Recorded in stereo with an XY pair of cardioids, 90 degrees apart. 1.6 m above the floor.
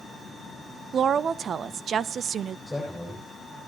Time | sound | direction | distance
0.9 | a woman speaking | 65° right | 0.6 m
2.7 | a man speaking | straight ahead | 8.5 m